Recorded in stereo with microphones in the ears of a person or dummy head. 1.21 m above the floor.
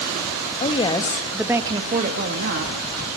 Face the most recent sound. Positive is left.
turn(degrees=-60)  # may be behind; listen again after turning